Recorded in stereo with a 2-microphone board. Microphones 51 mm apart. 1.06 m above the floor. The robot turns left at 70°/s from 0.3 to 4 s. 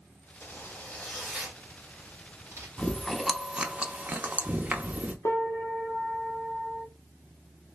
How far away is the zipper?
About 2.5 m.